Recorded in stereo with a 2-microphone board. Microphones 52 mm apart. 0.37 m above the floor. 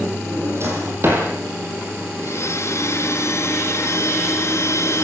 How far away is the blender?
About 3 m.